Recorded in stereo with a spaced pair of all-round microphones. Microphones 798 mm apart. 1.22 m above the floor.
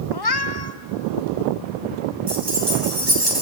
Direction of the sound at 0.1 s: 30° left (ahead or behind).